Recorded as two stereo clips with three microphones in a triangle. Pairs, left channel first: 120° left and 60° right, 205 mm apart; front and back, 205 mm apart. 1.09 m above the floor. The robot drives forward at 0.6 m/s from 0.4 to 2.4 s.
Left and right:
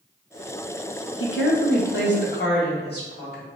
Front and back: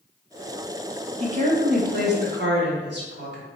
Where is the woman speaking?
125° left, 0.6 m; by 3.5 s 155° left, 1.2 m.